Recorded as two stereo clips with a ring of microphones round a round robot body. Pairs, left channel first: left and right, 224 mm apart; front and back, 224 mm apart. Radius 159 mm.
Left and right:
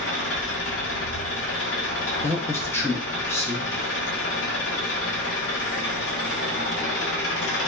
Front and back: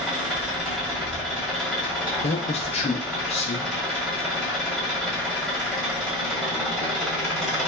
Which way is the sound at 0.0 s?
90° left.